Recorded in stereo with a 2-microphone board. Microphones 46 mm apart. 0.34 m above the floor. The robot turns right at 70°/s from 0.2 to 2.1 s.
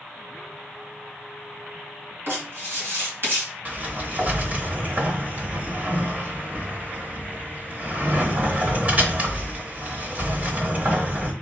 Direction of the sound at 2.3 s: 55° right (ahead or behind).